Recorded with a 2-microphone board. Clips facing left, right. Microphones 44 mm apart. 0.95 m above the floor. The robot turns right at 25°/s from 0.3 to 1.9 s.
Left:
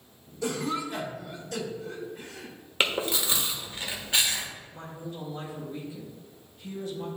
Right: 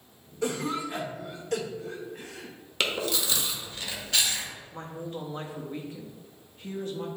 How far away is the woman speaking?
About 1.2 m.